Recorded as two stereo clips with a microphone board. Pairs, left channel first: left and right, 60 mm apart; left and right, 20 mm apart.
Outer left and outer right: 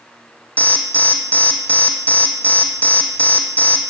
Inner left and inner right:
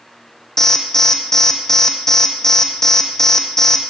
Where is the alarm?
20° left (ahead or behind), 4 m.